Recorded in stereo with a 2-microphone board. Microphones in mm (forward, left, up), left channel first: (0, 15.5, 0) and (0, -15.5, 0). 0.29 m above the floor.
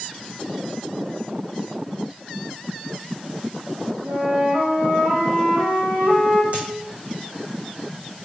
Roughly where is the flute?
Right.